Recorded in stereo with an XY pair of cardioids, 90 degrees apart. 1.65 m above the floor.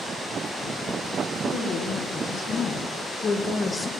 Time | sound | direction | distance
1.4 | a woman speaking | 70° left | 1.5 m